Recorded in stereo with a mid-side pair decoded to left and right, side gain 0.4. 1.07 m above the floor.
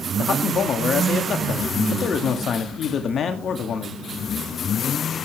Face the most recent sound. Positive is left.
turn(degrees=60)